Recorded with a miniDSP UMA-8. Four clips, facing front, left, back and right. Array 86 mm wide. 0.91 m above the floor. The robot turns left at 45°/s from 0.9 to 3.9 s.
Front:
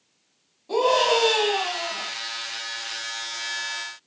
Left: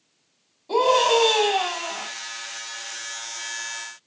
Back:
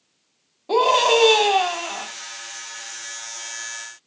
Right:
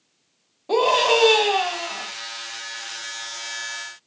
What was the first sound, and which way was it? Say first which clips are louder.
A scream: even, back 3 dB; 135° right.